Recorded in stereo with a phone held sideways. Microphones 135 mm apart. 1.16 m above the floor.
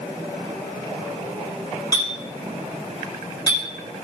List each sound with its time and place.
1.9 s a clink: 30° left (ahead or behind), 4 m